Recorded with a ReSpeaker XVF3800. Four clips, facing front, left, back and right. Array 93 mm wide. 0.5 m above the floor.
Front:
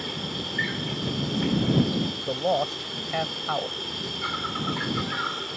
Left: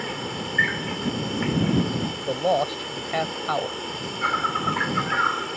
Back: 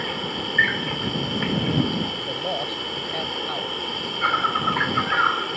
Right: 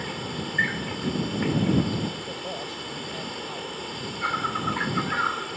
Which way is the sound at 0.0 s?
160° left.